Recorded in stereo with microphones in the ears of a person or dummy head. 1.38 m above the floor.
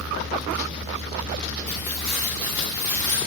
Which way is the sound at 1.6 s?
5° left (ahead or behind).